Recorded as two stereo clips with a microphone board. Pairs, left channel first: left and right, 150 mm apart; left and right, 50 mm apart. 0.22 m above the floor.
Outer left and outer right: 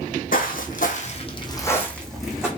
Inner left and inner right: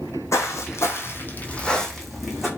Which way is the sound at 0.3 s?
75° left (ahead or behind).